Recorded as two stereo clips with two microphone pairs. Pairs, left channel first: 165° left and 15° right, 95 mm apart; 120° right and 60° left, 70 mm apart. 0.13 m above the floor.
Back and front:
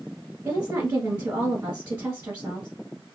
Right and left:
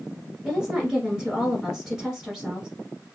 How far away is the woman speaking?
About 1.2 m.